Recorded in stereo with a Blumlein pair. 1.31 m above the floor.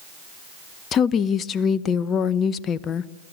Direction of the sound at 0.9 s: 25° left.